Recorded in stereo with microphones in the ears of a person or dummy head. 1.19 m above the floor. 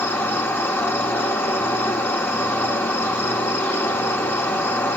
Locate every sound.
0.0 s an insect: 10° left (ahead or behind), 1.0 m